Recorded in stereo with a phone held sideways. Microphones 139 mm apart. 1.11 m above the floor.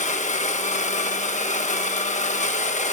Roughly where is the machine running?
Left.